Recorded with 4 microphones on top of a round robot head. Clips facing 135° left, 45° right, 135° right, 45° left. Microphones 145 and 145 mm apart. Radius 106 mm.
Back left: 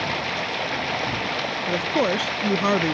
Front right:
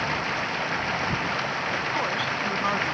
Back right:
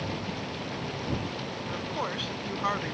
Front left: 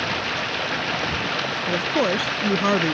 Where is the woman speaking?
90° left.